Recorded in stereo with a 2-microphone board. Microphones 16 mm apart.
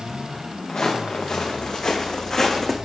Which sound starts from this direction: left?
Footsteps, at 0.7 s.